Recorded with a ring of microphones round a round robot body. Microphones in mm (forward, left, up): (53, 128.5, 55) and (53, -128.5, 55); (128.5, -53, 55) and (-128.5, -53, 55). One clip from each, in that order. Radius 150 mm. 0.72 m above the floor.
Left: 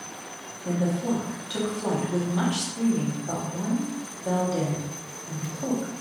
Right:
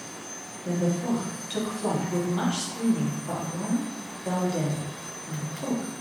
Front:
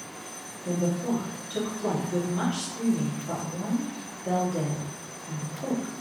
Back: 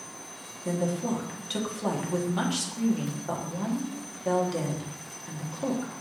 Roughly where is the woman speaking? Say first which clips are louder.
Even, even; behind.